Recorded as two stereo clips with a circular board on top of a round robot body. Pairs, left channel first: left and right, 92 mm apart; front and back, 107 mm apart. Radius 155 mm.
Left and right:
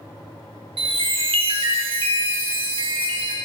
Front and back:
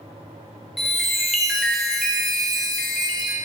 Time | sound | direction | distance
0.8 | a chime | 90° right | 0.9 m